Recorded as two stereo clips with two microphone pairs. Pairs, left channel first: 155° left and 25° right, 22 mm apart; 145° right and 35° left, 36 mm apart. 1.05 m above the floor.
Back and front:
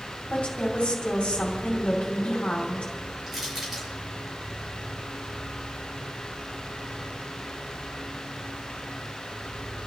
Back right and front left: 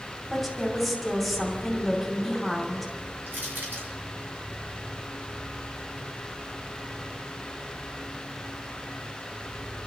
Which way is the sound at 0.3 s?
120° left.